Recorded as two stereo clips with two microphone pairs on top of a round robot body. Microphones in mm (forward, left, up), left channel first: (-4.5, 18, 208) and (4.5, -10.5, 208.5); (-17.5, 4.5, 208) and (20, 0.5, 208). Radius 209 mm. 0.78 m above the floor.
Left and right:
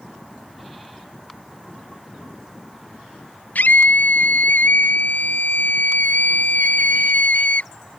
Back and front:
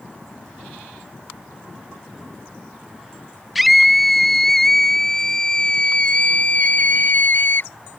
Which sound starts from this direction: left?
A scream, at 3.5 s.